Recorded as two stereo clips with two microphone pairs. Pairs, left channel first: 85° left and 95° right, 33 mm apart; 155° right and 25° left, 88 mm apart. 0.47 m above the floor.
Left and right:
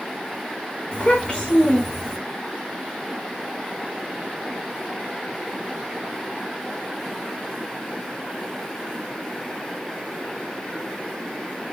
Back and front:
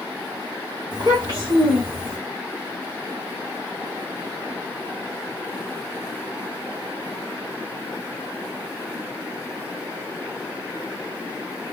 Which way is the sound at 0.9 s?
55° left.